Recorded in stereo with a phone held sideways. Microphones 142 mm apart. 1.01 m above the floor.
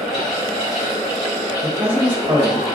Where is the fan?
45° left (ahead or behind), 2.0 m.